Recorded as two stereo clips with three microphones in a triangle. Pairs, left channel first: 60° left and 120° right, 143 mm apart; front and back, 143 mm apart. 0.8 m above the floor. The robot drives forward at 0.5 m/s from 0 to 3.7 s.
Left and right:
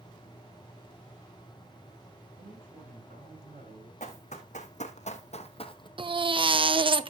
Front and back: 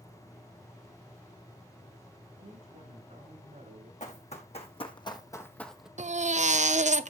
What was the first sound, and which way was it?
A man speaking, 140° right.